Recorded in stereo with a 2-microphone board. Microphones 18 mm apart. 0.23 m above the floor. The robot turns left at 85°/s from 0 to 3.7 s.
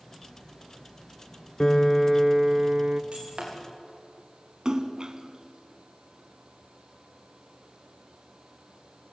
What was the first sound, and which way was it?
A piano, 45° left.